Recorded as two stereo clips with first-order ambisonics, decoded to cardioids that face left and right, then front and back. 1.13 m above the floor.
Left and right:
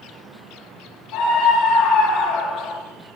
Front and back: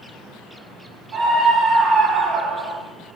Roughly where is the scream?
Behind left.